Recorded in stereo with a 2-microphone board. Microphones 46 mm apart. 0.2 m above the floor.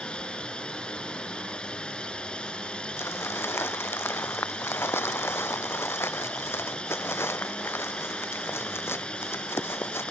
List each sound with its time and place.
0.0 s a drone: 20° left (ahead or behind)
3.0 s crumpling: 65° left (ahead or behind)